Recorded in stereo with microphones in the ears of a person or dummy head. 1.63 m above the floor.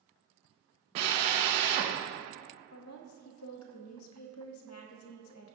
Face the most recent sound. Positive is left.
turn(degrees=90)